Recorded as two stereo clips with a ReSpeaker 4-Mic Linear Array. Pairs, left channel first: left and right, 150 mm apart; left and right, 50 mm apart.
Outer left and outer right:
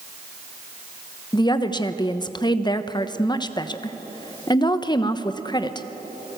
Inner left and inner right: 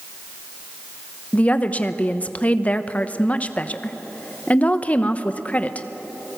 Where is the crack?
No crack in this recording.